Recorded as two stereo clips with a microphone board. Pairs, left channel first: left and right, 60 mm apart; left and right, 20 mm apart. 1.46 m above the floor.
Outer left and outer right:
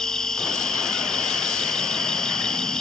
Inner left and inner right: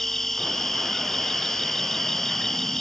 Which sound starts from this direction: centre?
An insect, at 0.0 s.